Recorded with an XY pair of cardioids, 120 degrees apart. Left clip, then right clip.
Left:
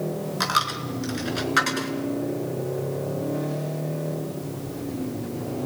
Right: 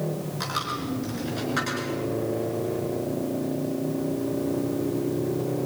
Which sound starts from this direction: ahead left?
A dropped coin, at 0.4 s.